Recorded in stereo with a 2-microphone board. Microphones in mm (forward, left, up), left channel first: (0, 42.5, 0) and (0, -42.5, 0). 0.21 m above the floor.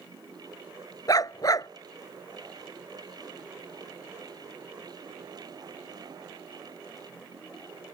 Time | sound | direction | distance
1.1 | a dog barking | 45° left (ahead or behind) | ?